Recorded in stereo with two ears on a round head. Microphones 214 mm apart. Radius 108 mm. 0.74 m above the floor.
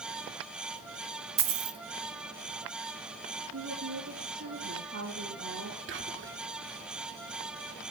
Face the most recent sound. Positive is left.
turn(degrees=-55)  # may be behind; listen again after turning